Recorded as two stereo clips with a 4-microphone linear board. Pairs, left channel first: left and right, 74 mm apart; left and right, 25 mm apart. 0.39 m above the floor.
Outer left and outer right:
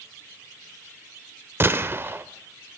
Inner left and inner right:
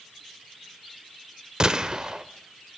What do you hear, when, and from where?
1.6 s a gunshot: 35° right (ahead or behind), 1.3 m